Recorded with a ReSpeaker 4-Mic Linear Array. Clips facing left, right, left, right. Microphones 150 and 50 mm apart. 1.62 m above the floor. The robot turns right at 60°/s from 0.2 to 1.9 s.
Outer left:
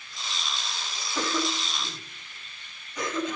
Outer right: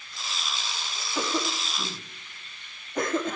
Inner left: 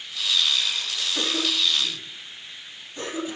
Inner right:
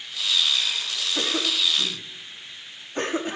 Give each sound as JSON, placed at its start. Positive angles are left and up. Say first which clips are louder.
{"t": 1.1, "sound": "a cough", "louder": "even, even", "side_deg": -5, "distance_m": 4.0}